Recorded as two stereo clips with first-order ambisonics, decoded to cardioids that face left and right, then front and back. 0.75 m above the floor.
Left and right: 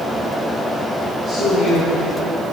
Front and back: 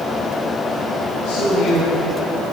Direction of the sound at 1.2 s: 5° left.